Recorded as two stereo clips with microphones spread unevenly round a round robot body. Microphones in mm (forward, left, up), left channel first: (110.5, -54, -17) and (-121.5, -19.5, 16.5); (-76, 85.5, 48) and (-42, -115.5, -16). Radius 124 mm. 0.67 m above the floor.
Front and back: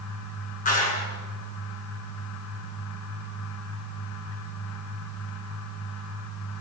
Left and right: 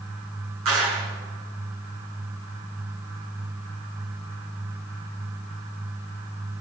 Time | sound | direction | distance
0.7 | a clap | 65° right | 8.5 m